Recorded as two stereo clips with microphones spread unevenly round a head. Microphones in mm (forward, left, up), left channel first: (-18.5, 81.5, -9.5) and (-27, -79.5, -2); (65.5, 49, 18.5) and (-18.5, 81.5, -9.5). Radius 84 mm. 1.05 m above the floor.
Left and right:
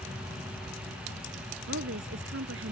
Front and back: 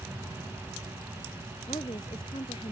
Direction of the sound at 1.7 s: 80° right.